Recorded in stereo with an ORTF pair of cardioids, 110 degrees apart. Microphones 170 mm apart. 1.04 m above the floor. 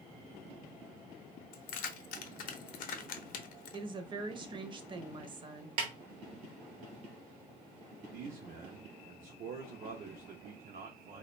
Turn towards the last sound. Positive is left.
turn(degrees=-60)